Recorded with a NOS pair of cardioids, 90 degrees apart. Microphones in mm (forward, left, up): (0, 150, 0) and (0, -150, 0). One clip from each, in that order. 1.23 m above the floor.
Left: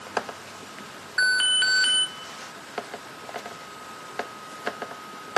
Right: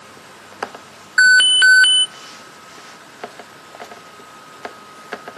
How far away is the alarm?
About 1.3 m.